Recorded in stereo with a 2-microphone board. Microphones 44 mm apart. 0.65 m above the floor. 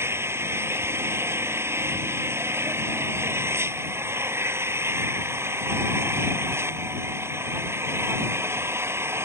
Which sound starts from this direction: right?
An engine running, at 0.0 s.